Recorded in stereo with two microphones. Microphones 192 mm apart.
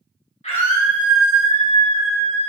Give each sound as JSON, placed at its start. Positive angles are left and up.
{"t": 0.4, "sound": "a scream", "side_deg": 30, "distance_m": 2.0}